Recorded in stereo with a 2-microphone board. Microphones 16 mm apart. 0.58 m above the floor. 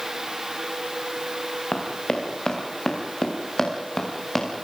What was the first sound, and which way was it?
Running footsteps, 60° left (ahead or behind).